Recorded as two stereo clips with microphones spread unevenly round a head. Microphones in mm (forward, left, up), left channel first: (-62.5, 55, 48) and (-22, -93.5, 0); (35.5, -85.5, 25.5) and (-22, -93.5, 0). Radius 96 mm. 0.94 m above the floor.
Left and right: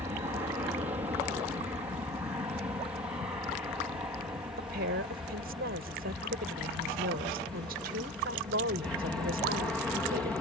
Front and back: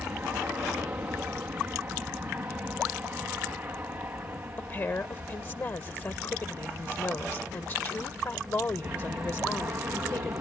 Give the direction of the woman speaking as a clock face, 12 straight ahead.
1 o'clock.